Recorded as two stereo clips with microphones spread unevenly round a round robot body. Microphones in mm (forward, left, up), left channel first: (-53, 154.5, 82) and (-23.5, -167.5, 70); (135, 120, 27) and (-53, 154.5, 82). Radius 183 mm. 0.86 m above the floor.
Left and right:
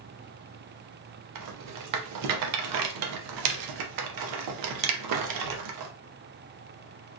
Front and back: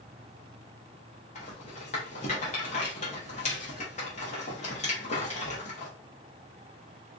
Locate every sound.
1.4 s a rattle: 65° right, 0.6 m